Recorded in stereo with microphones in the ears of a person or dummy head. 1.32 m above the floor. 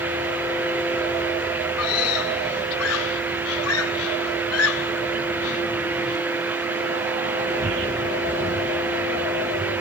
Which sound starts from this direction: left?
A scream, at 1.8 s.